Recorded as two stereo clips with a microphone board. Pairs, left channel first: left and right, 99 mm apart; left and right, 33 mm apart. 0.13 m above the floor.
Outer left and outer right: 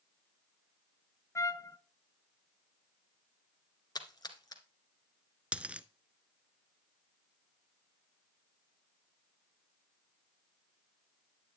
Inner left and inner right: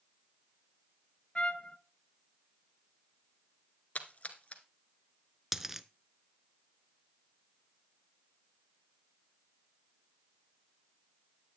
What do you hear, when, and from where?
1.4 s a trumpet: 35° left (ahead or behind), 0.5 m
4.0 s a splash: 45° left (ahead or behind), 1.2 m
5.5 s a dropped coin: 10° right (ahead or behind), 0.5 m